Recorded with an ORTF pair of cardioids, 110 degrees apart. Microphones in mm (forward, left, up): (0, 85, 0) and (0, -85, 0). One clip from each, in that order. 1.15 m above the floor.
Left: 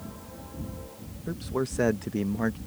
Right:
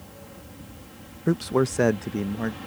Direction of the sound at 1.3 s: 55° right.